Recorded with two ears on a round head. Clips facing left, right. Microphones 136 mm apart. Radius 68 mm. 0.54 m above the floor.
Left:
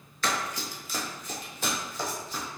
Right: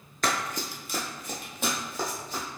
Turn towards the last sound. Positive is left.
turn(degrees=-45)  # may be behind; listen again after turning